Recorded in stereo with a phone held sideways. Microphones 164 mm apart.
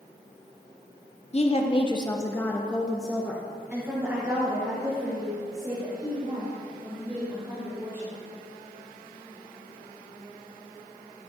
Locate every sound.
1.3 s a woman speaking: 40° left (ahead or behind), 0.8 m; by 8.1 s 25° right (ahead or behind), 4 m